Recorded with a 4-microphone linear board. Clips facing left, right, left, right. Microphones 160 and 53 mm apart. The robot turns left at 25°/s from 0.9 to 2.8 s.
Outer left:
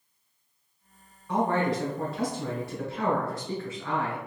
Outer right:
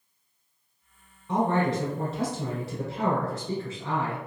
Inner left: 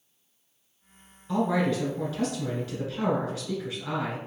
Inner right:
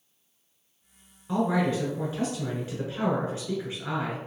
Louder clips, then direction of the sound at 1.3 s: Outer right 1 dB, even; 20° right (ahead or behind).